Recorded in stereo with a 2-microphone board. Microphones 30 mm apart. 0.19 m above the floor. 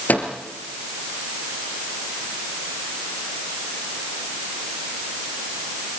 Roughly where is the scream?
No scream in this recording.